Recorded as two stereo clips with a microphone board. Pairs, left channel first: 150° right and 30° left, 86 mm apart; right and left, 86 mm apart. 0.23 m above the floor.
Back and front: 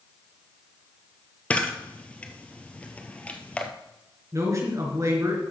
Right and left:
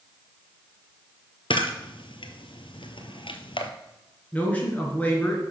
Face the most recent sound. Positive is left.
turn(degrees=-20)